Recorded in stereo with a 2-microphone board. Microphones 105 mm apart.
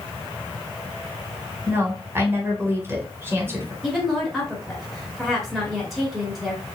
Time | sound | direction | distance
1.7 | a woman speaking | 25° right (ahead or behind) | 1.5 m
3.8 | a woman speaking | 5° right (ahead or behind) | 1.5 m